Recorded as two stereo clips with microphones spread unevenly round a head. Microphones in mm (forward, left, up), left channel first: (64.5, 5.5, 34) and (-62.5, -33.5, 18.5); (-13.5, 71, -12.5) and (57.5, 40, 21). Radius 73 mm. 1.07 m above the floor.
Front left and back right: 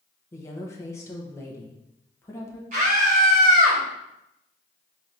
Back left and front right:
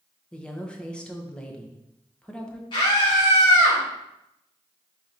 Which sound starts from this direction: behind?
A scream, at 2.7 s.